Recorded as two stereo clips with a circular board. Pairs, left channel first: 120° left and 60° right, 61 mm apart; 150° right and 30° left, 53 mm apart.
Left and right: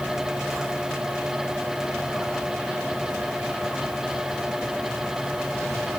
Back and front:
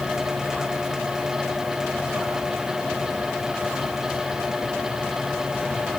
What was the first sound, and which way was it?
Only background noise.